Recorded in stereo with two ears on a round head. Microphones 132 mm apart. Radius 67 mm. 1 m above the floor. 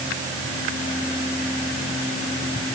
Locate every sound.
Only background noise.